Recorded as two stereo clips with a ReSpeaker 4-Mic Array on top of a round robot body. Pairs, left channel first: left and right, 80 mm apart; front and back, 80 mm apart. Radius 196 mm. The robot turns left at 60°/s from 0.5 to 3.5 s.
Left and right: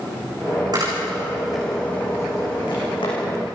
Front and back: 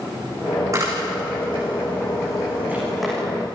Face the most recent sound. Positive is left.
turn(degrees=65)